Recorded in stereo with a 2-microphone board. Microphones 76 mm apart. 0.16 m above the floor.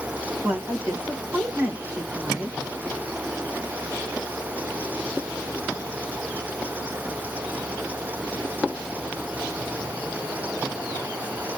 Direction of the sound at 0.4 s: 20° right (ahead or behind).